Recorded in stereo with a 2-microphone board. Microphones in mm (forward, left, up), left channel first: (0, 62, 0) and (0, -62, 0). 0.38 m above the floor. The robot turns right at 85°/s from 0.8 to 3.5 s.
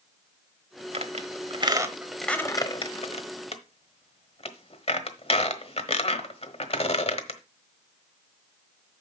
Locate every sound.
0.9 s a squeak: 60° right (ahead or behind), 1.2 m; by 7.4 s 55° left (ahead or behind), 1.2 m